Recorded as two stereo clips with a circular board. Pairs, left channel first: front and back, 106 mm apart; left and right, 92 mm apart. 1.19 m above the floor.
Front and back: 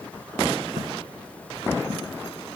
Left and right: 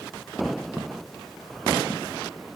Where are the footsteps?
Straight behind, 4 m; by 2.2 s 165° left, 5 m.